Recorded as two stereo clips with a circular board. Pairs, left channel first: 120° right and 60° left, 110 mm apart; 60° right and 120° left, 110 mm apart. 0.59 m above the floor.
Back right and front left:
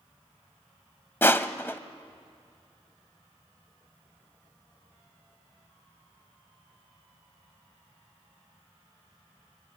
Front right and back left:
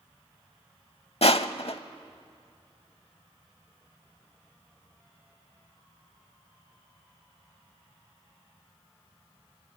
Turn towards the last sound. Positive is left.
turn(degrees=-55)